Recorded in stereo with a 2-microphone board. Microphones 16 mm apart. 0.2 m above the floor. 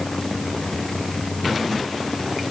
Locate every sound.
Only background noise.